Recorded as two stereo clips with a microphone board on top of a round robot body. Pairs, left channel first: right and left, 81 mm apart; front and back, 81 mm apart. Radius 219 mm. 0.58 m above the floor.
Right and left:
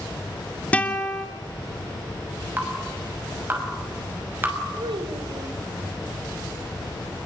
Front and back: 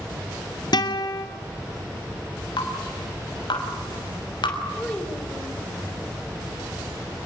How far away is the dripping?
About 6.5 m.